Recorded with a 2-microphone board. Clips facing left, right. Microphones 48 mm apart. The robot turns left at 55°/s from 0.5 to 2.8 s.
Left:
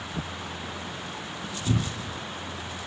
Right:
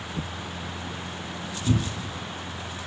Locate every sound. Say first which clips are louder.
1.7 s a cupboard door: right 2 dB; 45° right (ahead or behind), 1.6 m; by 2.2 s 65° right (ahead or behind), 1.6 m